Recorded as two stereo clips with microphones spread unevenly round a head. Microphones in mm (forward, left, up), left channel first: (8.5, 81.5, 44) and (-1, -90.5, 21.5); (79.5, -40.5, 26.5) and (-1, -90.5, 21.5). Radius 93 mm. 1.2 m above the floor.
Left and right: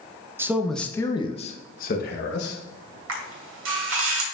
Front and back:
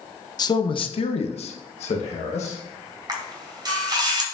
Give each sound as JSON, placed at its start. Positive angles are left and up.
{"t": 0.4, "sound": "a man speaking", "azimuth_deg": -15, "distance_m": 1.0}
{"t": 3.1, "sound": "a camera shutter", "azimuth_deg": -105, "distance_m": 2.5}